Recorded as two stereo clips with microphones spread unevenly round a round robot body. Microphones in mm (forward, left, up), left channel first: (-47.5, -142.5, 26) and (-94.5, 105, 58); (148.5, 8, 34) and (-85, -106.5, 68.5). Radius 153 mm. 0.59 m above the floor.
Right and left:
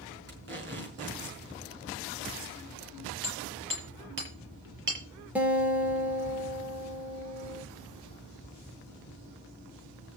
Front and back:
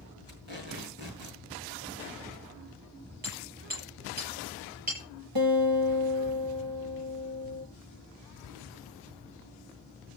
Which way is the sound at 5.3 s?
175° right.